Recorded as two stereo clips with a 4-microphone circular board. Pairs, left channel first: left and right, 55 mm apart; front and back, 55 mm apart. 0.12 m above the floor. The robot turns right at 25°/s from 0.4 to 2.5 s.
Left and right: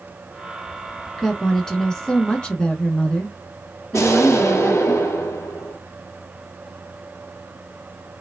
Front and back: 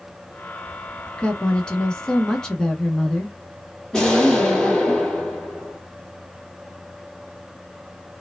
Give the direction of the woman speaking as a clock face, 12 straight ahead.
11 o'clock.